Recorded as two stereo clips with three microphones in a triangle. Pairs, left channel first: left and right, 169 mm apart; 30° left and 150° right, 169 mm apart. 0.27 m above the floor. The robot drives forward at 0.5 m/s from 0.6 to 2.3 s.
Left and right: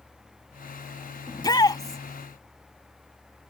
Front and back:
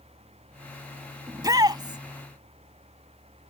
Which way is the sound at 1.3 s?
150° left.